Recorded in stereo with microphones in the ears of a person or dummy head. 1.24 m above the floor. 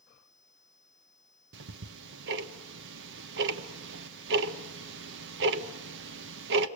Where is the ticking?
70° right (ahead or behind), 1.1 m.